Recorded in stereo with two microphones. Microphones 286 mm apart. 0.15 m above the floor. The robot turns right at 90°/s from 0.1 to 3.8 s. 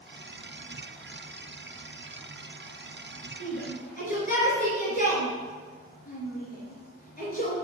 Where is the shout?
55° left (ahead or behind), 3 m; by 7.5 s 30° left (ahead or behind), 3 m.